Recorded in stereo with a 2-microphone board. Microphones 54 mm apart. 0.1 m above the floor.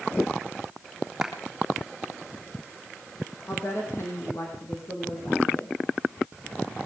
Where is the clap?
10° right (ahead or behind), 3.5 m.